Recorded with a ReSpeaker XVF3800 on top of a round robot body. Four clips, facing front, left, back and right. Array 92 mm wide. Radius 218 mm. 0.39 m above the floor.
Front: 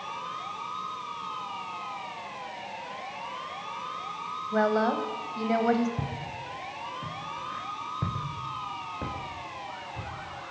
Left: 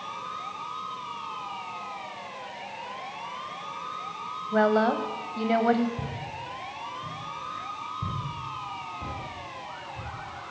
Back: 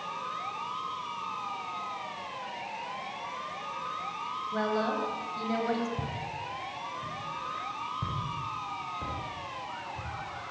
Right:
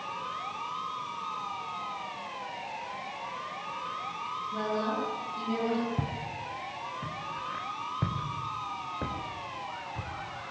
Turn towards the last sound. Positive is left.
turn(degrees=-60)